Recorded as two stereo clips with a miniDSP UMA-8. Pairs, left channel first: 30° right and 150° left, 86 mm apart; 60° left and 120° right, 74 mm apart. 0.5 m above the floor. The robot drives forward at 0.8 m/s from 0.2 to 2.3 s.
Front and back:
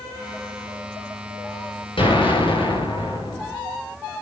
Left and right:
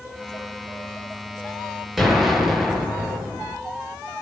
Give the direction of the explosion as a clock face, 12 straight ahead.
1 o'clock.